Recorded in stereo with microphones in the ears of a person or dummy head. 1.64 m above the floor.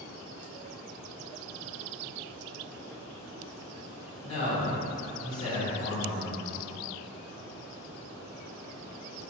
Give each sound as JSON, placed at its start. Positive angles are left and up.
{"t": 4.2, "sound": "a man speaking", "side_deg": 35, "distance_m": 1.2}